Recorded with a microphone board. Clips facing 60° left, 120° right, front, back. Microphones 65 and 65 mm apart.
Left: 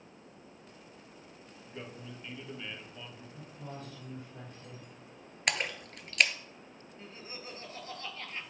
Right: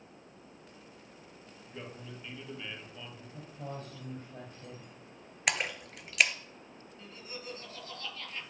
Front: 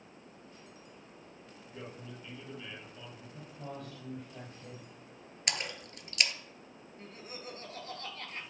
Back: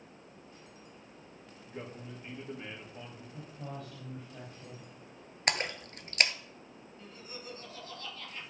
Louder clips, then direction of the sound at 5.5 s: Even, back 5 dB; 155° left.